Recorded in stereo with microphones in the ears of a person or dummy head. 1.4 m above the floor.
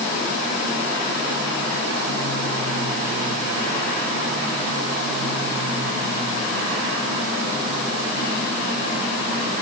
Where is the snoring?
I don't hear snoring.